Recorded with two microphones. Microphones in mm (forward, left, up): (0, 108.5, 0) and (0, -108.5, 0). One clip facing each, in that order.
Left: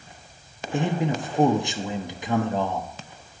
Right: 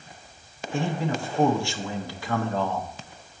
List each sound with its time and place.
0.7 s a man speaking: 20° left (ahead or behind), 0.5 m